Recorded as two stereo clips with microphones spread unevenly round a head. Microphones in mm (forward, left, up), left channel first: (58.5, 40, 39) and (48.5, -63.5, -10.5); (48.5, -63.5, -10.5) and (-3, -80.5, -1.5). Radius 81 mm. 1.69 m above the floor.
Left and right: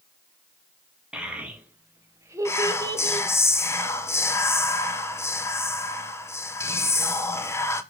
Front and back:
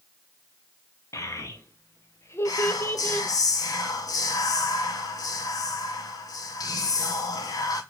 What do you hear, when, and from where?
1.1 s a child speaking: 5° right, 2 m; by 3.3 s 45° right, 1.4 m
2.5 s whispering: 30° left, 1.1 m